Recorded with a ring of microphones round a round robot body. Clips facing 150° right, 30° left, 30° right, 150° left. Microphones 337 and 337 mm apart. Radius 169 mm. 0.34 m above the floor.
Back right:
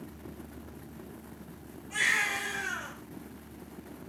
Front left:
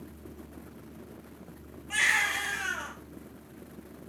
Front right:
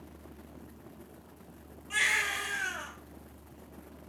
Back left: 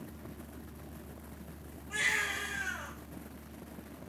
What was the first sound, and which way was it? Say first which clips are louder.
A baby crying: even, front right 1 dB; 20° left.